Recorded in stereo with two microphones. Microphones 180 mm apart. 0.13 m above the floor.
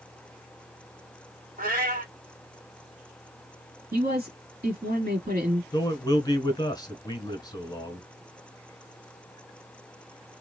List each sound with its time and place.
1.6 s a cat meowing: 55° right (ahead or behind), 1.9 m
3.9 s a man speaking: 55° right (ahead or behind), 2.5 m
5.7 s a man speaking: 25° left (ahead or behind), 1.1 m